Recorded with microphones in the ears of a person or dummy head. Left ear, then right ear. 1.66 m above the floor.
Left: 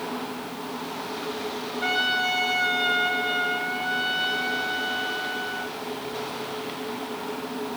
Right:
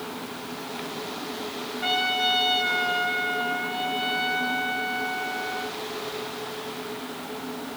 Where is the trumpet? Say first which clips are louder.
Even; 20° left (ahead or behind), 4.5 m.